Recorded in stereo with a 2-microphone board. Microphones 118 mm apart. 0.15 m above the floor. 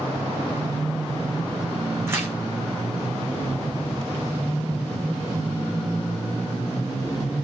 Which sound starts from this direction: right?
Tearing paper, at 2.1 s.